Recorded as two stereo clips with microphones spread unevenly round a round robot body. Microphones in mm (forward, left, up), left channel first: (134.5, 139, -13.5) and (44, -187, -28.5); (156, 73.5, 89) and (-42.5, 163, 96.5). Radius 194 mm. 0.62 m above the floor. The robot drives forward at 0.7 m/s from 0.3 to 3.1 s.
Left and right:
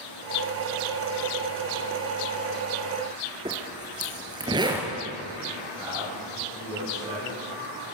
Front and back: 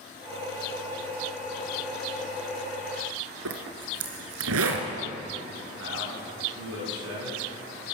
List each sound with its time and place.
3.5 s a zipper: 175° left, 2 m
5.8 s a man speaking: 175° left, 8 m